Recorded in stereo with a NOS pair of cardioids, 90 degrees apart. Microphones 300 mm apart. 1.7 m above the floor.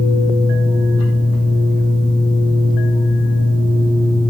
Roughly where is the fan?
Ahead right.